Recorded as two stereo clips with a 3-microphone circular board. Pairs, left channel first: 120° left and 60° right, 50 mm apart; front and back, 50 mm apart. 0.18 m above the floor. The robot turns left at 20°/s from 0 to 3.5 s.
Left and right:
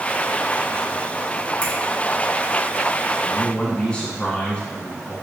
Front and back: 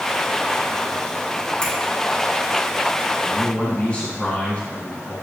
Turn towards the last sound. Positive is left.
turn(degrees=55)